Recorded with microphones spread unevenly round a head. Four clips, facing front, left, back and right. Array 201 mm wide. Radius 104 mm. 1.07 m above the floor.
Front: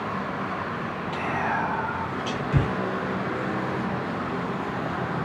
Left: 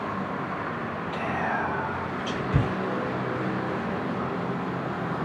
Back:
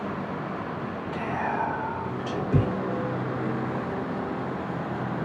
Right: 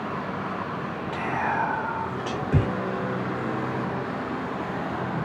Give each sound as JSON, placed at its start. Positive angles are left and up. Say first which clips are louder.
{"t": 1.1, "sound": "whispering", "louder": "right 2 dB, front 1 dB", "azimuth_deg": -75, "distance_m": 1.1}